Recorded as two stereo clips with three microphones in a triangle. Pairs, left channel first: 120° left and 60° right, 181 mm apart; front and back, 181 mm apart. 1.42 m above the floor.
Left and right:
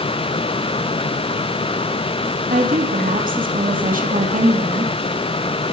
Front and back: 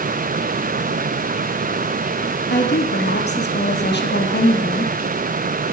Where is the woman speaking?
20° right, 2.5 m.